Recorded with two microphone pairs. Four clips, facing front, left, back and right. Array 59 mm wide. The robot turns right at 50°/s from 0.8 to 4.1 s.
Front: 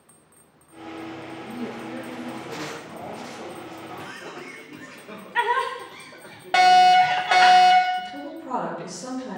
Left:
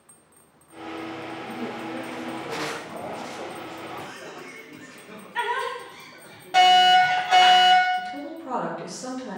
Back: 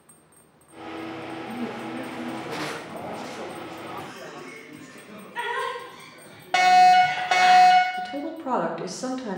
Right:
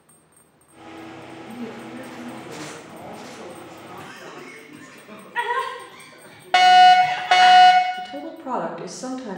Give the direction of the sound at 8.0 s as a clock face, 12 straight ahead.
5 o'clock.